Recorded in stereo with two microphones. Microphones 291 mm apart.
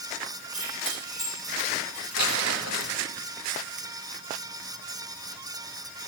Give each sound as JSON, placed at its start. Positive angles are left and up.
{"t": 0.5, "sound": "keys jangling", "side_deg": 15, "distance_m": 9.5}
{"t": 2.2, "sound": "crumpling", "side_deg": 65, "distance_m": 1.8}